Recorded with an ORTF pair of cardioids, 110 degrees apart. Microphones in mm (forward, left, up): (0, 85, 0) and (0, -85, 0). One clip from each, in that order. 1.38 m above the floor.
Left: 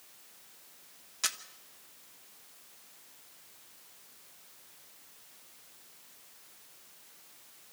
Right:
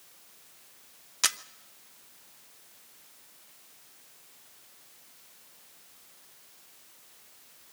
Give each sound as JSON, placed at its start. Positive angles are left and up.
{"t": 1.2, "sound": "a camera shutter", "azimuth_deg": -30, "distance_m": 0.8}